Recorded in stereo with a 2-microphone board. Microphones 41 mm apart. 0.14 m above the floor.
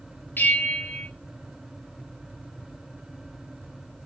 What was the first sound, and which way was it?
A bell, 55° left (ahead or behind).